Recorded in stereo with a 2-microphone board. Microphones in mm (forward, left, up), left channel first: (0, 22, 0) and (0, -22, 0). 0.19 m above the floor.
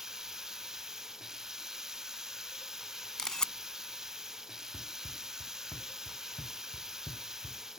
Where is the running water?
15° right (ahead or behind).